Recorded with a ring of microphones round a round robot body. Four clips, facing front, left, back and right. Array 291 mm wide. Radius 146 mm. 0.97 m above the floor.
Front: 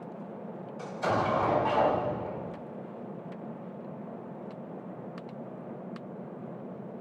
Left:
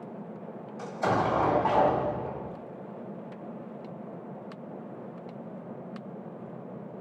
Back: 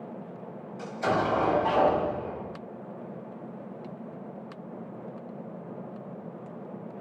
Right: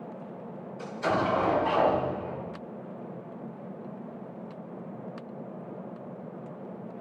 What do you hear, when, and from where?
0.8 s an explosion: 105° left, 1.3 m